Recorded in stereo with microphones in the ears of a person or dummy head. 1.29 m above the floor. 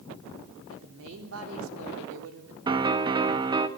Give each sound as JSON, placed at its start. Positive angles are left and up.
{"t": 0.7, "sound": "a woman speaking", "side_deg": -80, "distance_m": 4.0}
{"t": 2.7, "sound": "a piano", "side_deg": -30, "distance_m": 1.1}